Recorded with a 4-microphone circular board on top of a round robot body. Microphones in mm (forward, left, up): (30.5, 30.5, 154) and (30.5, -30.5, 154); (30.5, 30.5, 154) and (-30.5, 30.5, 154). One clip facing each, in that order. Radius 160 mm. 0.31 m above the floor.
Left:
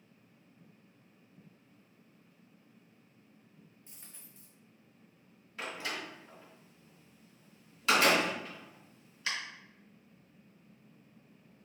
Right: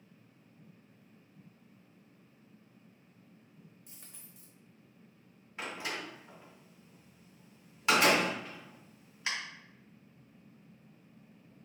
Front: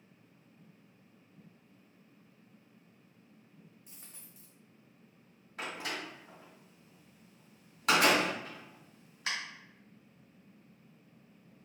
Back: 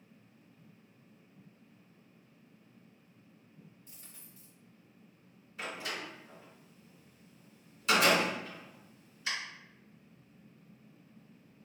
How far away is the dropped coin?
About 1.8 m.